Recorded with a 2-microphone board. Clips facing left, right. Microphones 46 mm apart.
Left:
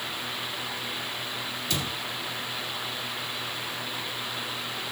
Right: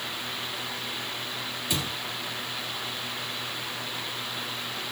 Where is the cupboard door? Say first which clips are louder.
Right 1 dB; 15° right (ahead or behind), 2 m.